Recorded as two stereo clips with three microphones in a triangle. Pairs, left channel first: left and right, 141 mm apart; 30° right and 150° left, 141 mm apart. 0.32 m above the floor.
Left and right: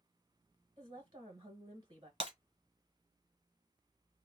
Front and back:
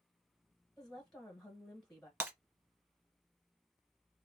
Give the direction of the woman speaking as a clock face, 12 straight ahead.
4 o'clock.